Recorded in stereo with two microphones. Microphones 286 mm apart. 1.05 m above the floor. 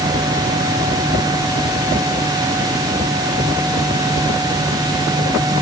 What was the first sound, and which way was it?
Only background noise.